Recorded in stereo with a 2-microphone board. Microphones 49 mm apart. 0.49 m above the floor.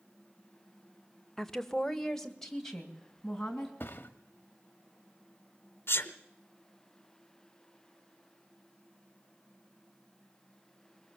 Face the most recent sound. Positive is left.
turn(degrees=55)  # may be behind; listen again after turning